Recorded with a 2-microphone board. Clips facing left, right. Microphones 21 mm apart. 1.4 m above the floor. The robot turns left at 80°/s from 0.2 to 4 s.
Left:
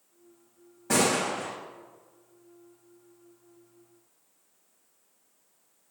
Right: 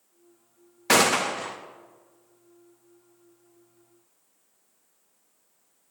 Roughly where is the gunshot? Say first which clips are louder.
Right 4 dB; right.